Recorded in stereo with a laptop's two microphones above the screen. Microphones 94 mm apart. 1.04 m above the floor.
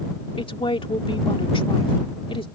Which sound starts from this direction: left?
A woman speaking, at 0.4 s.